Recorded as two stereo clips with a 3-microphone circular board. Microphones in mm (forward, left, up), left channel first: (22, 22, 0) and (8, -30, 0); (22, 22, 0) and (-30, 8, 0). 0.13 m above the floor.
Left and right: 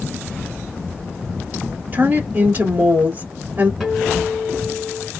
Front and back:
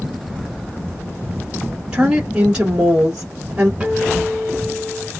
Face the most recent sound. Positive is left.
turn(degrees=-175)